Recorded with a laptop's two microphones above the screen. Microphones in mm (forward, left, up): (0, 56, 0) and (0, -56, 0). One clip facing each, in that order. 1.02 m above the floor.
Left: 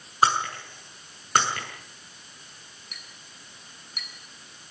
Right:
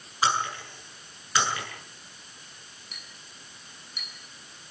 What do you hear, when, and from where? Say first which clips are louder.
0.2 s breaking glass: left 4 dB; 50° left (ahead or behind), 8 m
2.9 s a clink: even; 55° left (ahead or behind), 9.5 m